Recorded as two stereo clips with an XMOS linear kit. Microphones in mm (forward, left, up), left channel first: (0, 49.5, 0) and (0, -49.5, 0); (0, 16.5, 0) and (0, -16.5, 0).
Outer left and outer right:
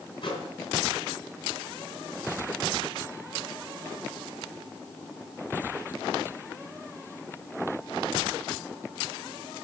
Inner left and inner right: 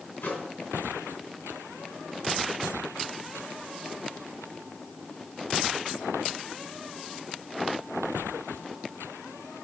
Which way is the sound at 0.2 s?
60° left (ahead or behind).